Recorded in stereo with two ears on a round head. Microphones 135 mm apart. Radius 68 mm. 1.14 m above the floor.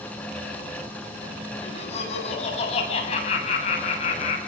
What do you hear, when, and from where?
1.6 s laughter: 45° left (ahead or behind), 9.5 m